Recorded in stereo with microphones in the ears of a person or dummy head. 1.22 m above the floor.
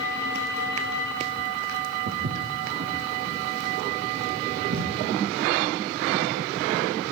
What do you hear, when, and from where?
2.1 s footsteps: 75° right (ahead or behind), 5 m; by 6.2 s 65° right (ahead or behind), 8.5 m